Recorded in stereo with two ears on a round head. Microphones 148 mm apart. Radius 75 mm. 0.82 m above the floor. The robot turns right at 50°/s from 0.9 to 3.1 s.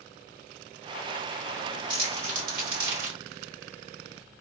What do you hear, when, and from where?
1.9 s crumpling: 30° right (ahead or behind), 1.4 m; by 3.2 s 85° right, 1.4 m